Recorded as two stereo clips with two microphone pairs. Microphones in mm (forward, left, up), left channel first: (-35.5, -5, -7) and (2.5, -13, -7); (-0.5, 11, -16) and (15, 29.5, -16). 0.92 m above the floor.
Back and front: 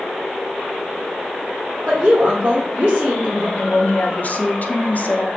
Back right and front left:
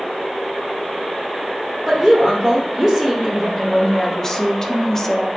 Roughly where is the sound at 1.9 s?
Ahead right.